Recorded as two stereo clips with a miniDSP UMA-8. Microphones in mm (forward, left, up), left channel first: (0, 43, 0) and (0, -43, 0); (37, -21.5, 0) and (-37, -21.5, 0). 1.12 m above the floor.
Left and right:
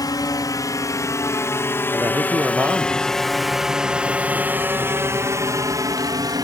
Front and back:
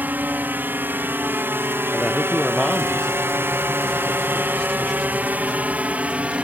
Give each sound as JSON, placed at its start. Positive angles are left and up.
{"t": 0.0, "sound": "a drone", "azimuth_deg": 120}
{"t": 1.9, "sound": "a man speaking", "azimuth_deg": -80}